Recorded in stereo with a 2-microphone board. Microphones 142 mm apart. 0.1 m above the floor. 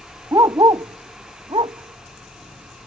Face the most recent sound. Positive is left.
turn(degrees=-40)  # may be behind; listen again after turning